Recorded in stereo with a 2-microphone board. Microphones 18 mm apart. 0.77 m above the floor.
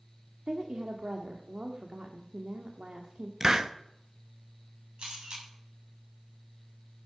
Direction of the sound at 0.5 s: 75° right (ahead or behind).